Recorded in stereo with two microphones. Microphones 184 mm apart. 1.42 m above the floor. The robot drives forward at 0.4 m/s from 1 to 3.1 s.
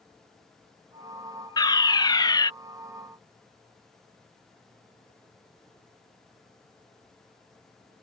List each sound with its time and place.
1.6 s a fire alarm: 20° left (ahead or behind)